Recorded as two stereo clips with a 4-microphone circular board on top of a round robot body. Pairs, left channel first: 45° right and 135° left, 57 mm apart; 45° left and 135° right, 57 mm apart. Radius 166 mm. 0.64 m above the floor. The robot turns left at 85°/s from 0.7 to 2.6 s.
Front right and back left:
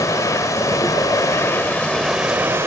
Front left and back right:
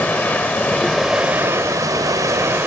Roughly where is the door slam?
No door slam in this recording.